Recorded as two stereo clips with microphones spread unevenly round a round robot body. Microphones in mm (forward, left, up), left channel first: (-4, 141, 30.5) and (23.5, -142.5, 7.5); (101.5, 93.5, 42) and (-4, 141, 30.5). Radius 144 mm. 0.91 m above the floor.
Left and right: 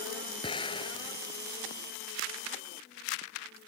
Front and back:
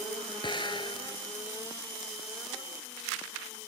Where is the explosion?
20° left.